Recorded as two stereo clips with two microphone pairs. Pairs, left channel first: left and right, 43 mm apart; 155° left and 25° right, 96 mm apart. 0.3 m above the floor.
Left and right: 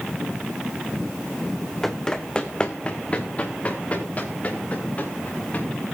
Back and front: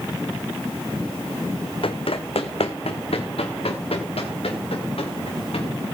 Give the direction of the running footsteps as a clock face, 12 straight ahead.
6 o'clock.